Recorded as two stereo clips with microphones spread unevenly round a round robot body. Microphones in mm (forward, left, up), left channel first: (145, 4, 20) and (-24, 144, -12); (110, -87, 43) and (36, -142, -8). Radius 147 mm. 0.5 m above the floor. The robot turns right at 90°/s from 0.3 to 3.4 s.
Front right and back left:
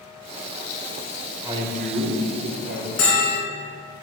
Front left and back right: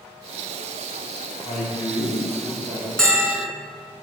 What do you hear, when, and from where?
1.4 s a man speaking: 65° left, 1.9 m; by 2.9 s 160° right, 1.9 m
3.0 s a bell: 45° right, 2.5 m; by 3.5 s 5° right, 2.5 m